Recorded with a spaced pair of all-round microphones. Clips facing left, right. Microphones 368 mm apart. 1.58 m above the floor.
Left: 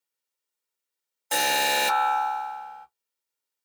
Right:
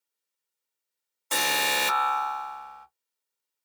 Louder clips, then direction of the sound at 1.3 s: Left 3 dB; 10° right (ahead or behind).